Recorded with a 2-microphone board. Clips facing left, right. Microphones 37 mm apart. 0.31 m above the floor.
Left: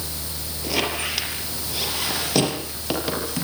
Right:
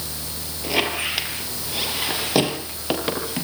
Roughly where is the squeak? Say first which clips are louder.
Right 2 dB; right.